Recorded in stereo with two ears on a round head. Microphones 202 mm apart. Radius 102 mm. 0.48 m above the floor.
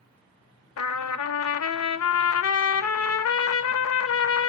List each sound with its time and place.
0.8 s a trumpet: 75° left (ahead or behind), 0.6 m